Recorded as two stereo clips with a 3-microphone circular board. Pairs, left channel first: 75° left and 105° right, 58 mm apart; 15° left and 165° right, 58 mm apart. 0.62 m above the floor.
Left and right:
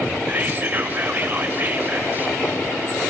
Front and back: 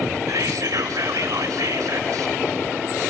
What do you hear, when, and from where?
0.3 s whispering: 160° right, 2.5 m